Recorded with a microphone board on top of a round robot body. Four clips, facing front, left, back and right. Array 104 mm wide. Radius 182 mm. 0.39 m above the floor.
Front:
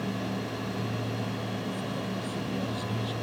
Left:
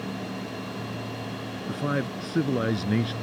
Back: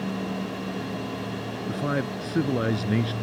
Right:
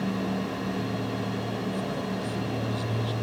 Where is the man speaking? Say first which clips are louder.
Left 2 dB, back 6 dB; 135° left.